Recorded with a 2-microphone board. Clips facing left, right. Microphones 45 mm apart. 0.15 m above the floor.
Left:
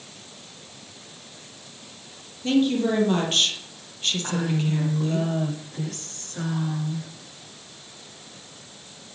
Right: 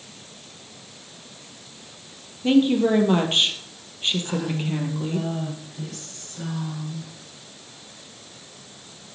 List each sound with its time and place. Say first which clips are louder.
2.4 s a woman speaking: right 3 dB; 20° right (ahead or behind), 3 m
4.2 s a woman speaking: left 1 dB; 60° left (ahead or behind), 8.5 m